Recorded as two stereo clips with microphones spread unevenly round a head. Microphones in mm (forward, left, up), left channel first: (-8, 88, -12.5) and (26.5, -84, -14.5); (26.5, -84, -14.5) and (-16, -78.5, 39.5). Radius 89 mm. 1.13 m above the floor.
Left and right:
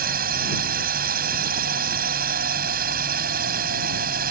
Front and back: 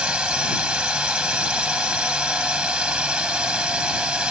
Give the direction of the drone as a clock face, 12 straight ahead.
4 o'clock.